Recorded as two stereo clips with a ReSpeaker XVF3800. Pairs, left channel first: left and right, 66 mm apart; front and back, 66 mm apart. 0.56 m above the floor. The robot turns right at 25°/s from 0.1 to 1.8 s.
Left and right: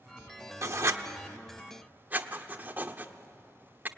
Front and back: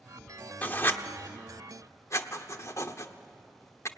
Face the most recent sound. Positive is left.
turn(degrees=-30)